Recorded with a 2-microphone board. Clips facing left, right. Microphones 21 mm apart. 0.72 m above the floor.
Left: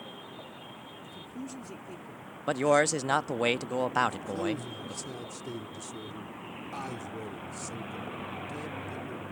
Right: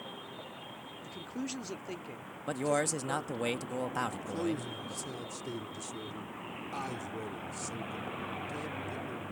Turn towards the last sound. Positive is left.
turn(degrees=0)  # may be behind; listen again after turning